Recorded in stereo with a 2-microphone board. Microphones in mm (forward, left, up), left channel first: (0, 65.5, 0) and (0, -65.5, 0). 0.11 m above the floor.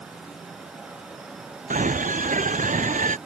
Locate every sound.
1.7 s a scream: 80° right; by 3.2 s 75° right (ahead or behind)